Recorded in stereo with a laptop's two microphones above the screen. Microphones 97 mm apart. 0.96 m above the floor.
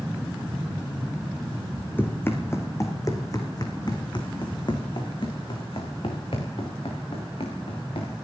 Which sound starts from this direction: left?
Running footsteps, at 2.0 s.